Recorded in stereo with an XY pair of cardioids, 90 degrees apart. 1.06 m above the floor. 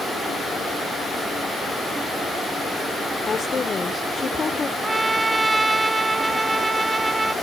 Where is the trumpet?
25° right.